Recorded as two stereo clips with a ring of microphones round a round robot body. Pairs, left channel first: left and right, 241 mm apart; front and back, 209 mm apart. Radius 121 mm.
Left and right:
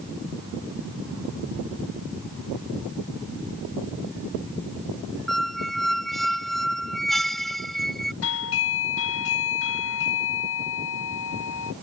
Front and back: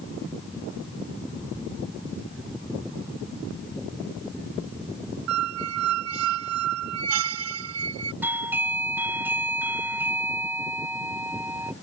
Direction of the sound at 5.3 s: Straight behind.